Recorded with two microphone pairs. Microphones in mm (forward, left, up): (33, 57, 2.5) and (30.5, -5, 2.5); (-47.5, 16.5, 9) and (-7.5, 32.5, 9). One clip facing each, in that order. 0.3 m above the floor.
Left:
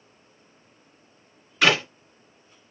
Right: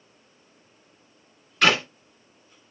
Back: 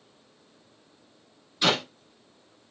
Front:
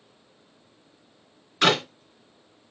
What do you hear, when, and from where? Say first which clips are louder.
1.6 s a clap: even, front 4 dB; 5° left, 2.5 m